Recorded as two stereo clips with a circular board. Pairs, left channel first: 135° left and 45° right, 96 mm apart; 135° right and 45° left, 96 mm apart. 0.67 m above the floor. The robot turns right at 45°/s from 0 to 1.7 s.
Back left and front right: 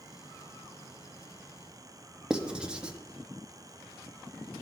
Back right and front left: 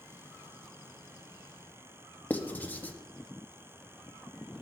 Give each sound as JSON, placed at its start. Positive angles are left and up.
{"t": 2.3, "sound": "writing", "azimuth_deg": -105, "distance_m": 0.5}